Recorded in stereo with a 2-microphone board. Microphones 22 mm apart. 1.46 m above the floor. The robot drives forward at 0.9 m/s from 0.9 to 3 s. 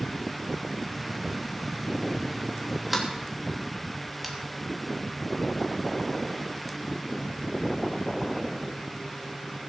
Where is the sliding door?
5° right (ahead or behind), 3 m.